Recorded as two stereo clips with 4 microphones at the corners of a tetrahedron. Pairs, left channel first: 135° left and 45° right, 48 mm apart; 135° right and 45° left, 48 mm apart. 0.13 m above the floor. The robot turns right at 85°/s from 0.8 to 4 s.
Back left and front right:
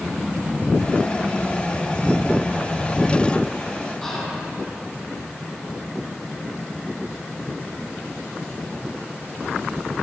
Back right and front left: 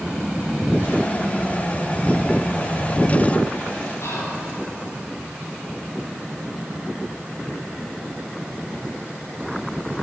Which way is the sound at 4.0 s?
155° right.